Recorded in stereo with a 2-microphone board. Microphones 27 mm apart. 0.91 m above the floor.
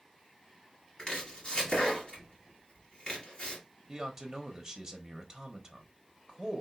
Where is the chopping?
35° left (ahead or behind), 2 m.